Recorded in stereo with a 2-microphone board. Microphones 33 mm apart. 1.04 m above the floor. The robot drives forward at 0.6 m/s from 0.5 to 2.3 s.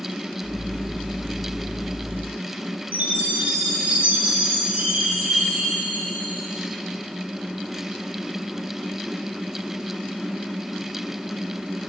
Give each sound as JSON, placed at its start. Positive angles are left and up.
{"t": 2.9, "sound": "a chime", "side_deg": -55, "distance_m": 4.0}